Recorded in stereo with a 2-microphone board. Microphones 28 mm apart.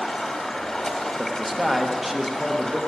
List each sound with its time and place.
0.0 s running water: 10° left (ahead or behind), 1.6 m
1.2 s a man speaking: 10° right (ahead or behind), 1.1 m